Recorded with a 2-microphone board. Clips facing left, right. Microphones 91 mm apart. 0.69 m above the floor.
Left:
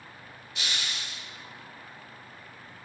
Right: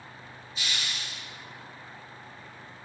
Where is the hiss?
80° left, 5 m.